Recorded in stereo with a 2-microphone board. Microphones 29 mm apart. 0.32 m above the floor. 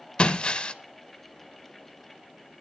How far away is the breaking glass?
About 0.8 m.